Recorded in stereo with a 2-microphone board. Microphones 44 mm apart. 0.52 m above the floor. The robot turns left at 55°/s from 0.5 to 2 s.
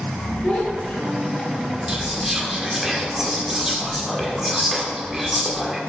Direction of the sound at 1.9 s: 10° right (ahead or behind).